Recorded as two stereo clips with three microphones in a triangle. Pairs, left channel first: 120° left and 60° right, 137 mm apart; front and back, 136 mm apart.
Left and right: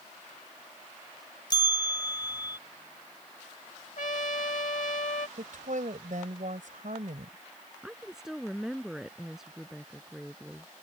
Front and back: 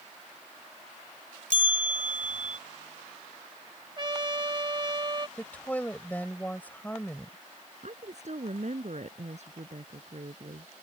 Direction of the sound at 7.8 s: 145° right.